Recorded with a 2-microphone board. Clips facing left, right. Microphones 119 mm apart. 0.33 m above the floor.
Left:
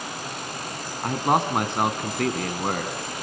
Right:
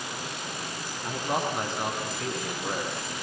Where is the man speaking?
70° left (ahead or behind), 2.5 m.